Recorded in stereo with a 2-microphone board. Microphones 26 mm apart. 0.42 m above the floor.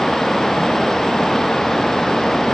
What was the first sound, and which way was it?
Only background noise.